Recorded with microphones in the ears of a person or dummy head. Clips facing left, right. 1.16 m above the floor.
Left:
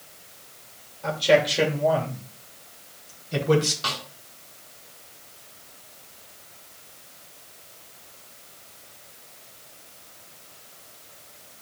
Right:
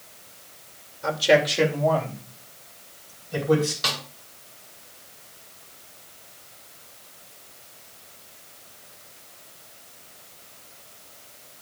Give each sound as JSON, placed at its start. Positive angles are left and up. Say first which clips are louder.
{"t": 1.0, "sound": "a man speaking", "louder": "even", "side_deg": -15, "distance_m": 2.5}
{"t": 3.8, "sound": "a snare drum", "louder": "right 1 dB", "side_deg": -20, "distance_m": 2.5}